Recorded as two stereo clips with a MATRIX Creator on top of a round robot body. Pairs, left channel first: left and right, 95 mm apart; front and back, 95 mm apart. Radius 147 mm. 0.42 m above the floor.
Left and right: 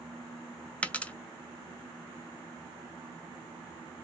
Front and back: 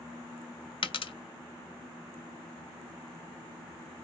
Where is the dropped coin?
15° left, 0.6 m.